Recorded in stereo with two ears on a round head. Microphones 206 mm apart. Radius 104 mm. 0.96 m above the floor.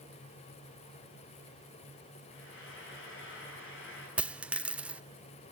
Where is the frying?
60° left (ahead or behind), 9 m.